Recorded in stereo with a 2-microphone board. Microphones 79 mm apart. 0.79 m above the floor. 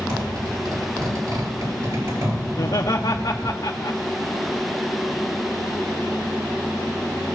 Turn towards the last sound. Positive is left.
turn(degrees=65)  # may be behind; listen again after turning